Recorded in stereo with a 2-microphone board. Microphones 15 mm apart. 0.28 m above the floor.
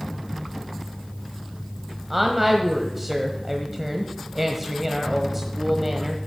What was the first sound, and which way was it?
A woman speaking, 10° right (ahead or behind).